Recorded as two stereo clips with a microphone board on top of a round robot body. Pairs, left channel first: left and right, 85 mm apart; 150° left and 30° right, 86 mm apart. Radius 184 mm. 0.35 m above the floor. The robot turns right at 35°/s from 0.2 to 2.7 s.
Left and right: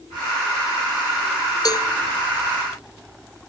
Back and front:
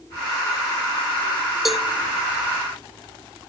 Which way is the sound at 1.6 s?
55° left.